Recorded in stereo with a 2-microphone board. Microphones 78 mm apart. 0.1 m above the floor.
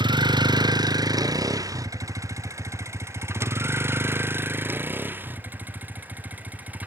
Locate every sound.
0.0 s a vehicle: 70° right (ahead or behind); by 6.9 s 20° right (ahead or behind)